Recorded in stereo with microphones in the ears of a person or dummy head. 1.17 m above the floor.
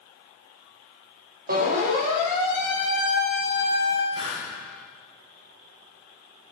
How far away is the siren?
About 4 m.